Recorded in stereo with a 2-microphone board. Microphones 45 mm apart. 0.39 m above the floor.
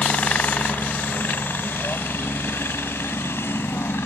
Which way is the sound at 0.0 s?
35° left (ahead or behind).